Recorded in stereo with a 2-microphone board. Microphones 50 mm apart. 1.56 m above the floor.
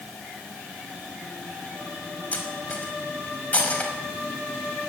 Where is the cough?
I don't hear a cough.